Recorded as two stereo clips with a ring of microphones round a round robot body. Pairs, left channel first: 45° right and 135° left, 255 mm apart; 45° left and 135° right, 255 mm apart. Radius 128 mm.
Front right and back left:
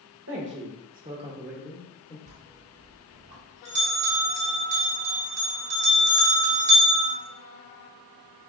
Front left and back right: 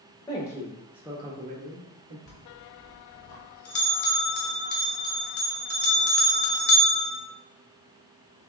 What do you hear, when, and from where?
0.3 s a man speaking: 115° left, 1.2 m; by 2.2 s 115° right, 1.2 m
2.3 s a bell: 85° left, 1.2 m